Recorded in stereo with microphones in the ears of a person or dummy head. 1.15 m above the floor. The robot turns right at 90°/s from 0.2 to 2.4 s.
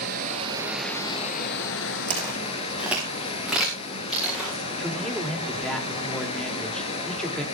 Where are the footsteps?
35° right (ahead or behind), 5 m; by 4.6 s centre (ahead or behind), 7 m.